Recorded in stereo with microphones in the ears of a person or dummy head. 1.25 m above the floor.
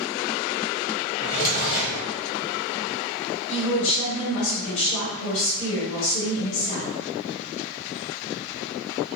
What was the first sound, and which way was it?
A drawer, 50° left (ahead or behind).